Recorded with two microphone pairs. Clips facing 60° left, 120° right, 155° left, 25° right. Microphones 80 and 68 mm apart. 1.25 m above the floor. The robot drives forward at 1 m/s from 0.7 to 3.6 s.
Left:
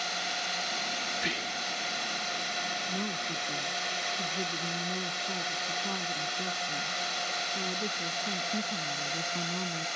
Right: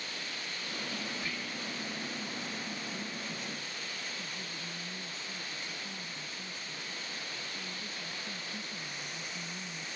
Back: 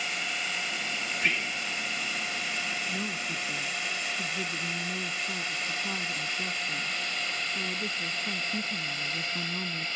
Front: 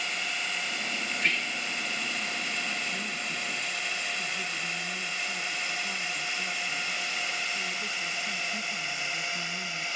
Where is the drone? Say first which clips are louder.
Left 8 dB, even; 65° left; by 10.0 s 50° left.